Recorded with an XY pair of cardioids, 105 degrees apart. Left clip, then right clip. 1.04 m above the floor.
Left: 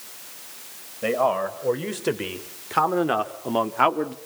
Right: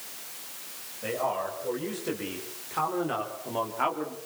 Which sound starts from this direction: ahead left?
A man speaking, at 1.0 s.